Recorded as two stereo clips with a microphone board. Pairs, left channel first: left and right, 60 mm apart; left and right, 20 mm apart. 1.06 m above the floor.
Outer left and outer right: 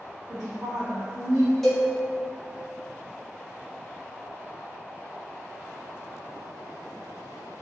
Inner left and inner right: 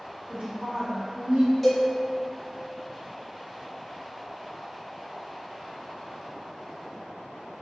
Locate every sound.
0.3 s a woman speaking: 75° right (ahead or behind), 1.2 m
1.6 s a cowbell: 5° left (ahead or behind), 1.0 m